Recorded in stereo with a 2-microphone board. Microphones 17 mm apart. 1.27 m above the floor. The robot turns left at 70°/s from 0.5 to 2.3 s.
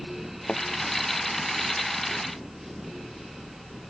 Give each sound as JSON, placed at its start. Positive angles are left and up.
{"t": 0.5, "sound": "a thud", "side_deg": 90}